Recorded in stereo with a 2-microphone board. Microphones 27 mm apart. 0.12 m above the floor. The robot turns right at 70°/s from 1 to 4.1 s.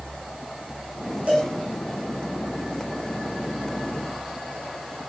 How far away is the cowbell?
About 3 m.